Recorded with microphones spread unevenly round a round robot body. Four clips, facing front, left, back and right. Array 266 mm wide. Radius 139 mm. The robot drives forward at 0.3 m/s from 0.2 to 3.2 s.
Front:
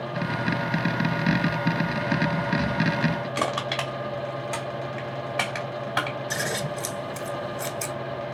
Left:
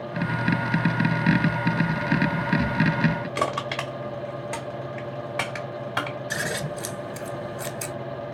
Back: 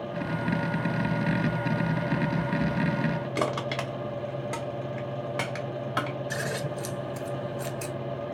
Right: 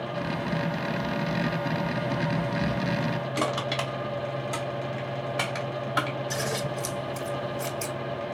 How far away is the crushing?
About 1.8 m.